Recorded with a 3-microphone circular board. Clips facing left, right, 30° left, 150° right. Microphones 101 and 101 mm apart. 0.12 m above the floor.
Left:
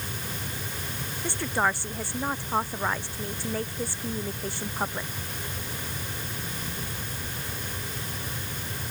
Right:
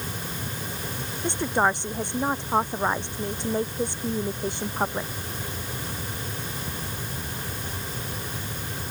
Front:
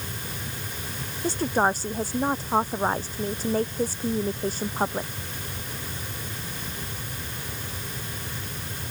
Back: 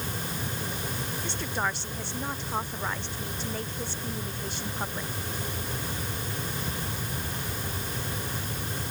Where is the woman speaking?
20° right.